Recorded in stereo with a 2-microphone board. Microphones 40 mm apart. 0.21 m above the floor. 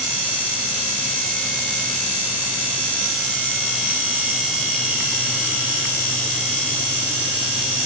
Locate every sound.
Only background noise.